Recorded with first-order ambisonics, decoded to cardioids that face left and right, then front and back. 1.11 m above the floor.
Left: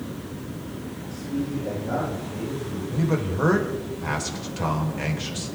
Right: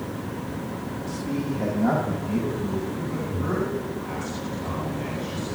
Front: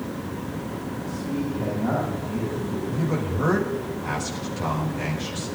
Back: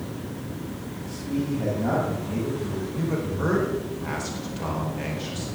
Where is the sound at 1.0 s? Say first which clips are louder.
Even, back 2 dB; 95° right, 6.5 m.